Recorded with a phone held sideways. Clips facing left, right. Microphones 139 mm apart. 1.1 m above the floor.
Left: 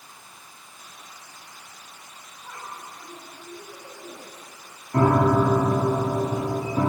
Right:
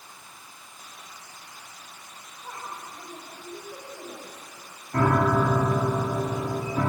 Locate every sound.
2.4 s a woman speaking: 25° right (ahead or behind), 6 m
4.9 s a piano: 25° left (ahead or behind), 1.4 m